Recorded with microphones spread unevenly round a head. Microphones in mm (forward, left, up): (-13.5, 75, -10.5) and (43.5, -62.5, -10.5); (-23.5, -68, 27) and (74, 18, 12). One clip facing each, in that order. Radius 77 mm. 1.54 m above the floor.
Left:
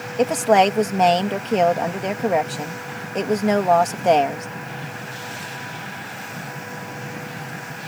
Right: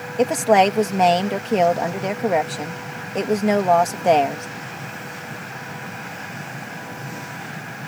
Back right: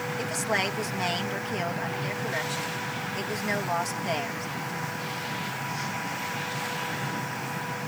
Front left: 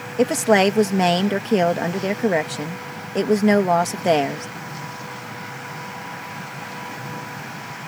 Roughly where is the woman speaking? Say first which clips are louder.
Even, front left 16 dB; ahead.